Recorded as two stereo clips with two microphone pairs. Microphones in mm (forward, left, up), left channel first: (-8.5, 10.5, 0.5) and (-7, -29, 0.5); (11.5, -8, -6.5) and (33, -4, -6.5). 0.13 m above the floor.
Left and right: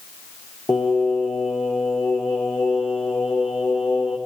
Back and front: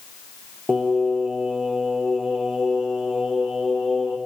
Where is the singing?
80° left, 1.6 m.